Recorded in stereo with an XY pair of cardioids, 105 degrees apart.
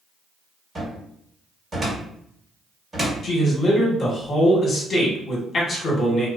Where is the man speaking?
45° left, 1.2 m.